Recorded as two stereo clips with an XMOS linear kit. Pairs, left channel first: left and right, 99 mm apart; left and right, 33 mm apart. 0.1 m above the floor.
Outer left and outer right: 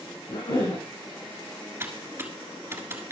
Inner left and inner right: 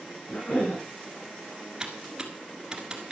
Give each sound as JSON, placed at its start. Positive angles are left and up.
{"t": 0.3, "sound": "a cough", "side_deg": 70, "distance_m": 4.0}
{"t": 1.8, "sound": "typing on a keyboard", "side_deg": -25, "distance_m": 1.5}